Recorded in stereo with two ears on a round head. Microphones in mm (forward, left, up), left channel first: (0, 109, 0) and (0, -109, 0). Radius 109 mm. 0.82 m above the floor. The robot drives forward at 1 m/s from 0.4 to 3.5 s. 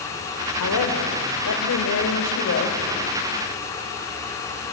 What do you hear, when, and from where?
0.6 s a woman speaking: 80° left, 3 m; by 2.8 s 55° left (ahead or behind), 3.5 m